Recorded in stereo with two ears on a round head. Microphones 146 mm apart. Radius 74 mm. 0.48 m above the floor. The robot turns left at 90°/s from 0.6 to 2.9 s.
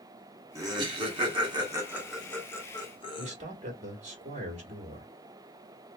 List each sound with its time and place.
0.6 s laughter: 20° right (ahead or behind), 1.2 m; by 3.3 s 30° left (ahead or behind), 1.2 m
3.2 s a man speaking: 45° right (ahead or behind), 1.5 m